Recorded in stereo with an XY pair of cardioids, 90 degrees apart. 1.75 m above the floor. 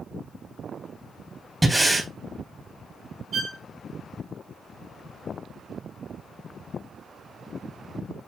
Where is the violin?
60° right, 4 m.